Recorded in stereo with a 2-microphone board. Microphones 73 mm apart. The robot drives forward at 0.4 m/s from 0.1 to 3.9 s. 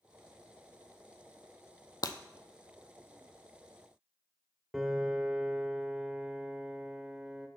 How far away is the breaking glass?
About 0.7 m.